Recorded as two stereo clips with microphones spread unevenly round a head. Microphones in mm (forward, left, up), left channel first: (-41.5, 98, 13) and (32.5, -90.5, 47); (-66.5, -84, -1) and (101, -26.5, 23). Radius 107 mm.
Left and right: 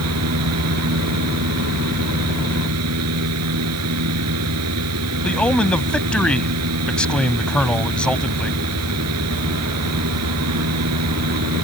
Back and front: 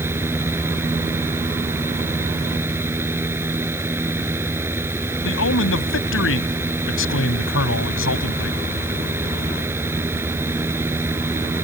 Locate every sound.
0.0 s a fan: 60° right
5.2 s a man speaking: 160° right